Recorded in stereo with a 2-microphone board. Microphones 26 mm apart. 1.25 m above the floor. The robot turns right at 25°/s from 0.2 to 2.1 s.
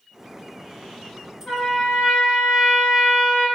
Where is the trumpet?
70° left (ahead or behind), 1.3 m.